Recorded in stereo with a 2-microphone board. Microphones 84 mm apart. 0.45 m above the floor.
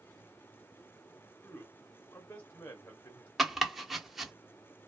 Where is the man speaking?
25° left (ahead or behind), 0.8 m.